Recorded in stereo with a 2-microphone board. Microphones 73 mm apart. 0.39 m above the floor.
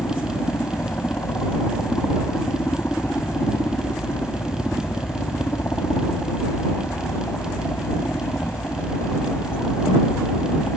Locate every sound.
0.0 s a helicopter: 30° left (ahead or behind)